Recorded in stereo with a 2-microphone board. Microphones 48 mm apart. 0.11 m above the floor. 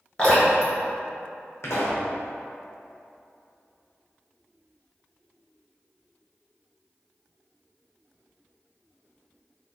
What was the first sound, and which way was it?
Dripping, 25° left (ahead or behind).